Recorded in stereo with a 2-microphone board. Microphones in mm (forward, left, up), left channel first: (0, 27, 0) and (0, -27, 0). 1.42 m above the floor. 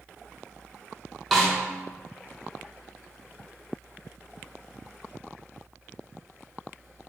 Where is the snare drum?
5° right (ahead or behind), 0.7 m.